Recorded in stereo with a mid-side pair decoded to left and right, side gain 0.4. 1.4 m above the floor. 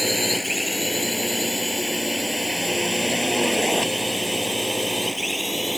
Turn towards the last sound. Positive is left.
turn(degrees=5)